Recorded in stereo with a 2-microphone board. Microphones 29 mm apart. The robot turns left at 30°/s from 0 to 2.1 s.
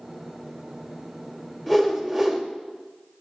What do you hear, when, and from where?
1.7 s a whoosh: 10° left (ahead or behind), 1.7 m; by 2.4 s centre (ahead or behind), 1.7 m